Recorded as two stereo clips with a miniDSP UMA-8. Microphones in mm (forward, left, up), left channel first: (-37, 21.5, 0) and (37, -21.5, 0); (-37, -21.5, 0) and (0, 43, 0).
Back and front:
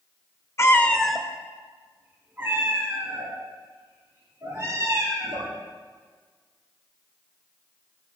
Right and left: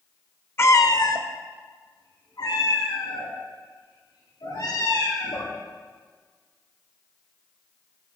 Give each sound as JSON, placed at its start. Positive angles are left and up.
{"t": 0.6, "sound": "a cat meowing", "azimuth_deg": -165, "distance_m": 0.6}